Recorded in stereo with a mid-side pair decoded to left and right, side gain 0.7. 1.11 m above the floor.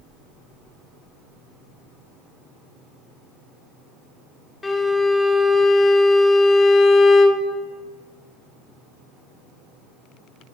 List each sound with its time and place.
4.6 s a violin: 15° left, 0.9 m